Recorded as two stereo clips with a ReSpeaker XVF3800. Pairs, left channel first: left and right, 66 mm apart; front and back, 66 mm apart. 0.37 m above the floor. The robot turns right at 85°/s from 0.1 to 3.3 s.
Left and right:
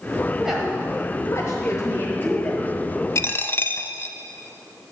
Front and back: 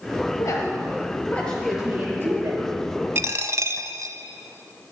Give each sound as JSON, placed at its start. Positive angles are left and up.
{"t": 0.4, "sound": "a woman speaking", "azimuth_deg": -20, "distance_m": 1.5}
{"t": 3.1, "sound": "a dropped coin", "azimuth_deg": 130, "distance_m": 0.6}